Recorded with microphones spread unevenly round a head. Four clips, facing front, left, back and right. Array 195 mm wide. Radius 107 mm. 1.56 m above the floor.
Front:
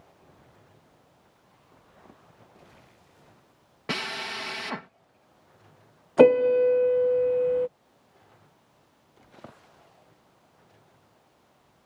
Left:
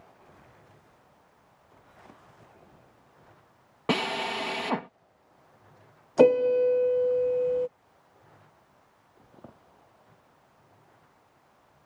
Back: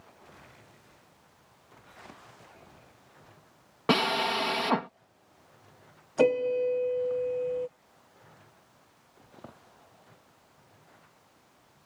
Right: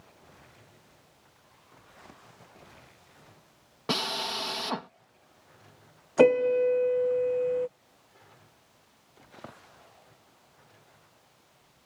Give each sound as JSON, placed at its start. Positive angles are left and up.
{"t": 3.9, "sound": "a drill", "azimuth_deg": 155}
{"t": 6.2, "sound": "a piano", "azimuth_deg": 5}